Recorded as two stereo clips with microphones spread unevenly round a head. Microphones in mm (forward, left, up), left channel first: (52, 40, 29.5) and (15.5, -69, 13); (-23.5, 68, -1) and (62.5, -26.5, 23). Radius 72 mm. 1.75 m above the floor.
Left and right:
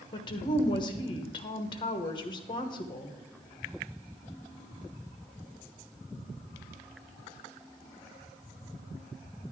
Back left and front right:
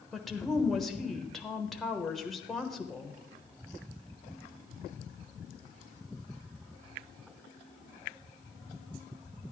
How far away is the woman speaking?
About 1.1 m.